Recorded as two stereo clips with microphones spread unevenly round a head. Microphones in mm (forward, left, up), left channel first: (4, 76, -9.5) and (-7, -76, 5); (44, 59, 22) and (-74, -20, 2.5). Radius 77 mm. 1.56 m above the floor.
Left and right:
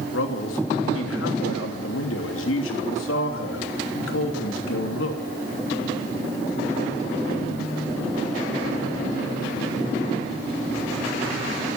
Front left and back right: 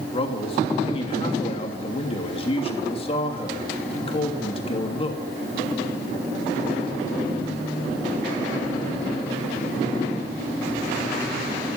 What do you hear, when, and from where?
0.1 s a man speaking: 85° left, 3 m